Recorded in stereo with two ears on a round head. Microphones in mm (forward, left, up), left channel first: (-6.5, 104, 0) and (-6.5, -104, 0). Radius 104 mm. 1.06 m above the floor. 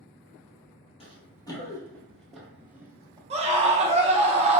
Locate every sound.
1.0 s running footsteps: 25° left (ahead or behind), 1.6 m; by 3.2 s 15° right (ahead or behind), 1.5 m
3.3 s a scream: 30° right (ahead or behind), 0.8 m